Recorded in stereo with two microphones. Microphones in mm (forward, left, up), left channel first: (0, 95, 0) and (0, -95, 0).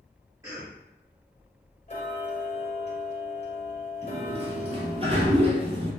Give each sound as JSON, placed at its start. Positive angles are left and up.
{"t": 0.4, "sound": "a cough", "side_deg": -20, "distance_m": 2.0}
{"t": 1.9, "sound": "ticking", "side_deg": 40, "distance_m": 2.0}
{"t": 4.0, "sound": "a sliding door", "side_deg": -30, "distance_m": 1.7}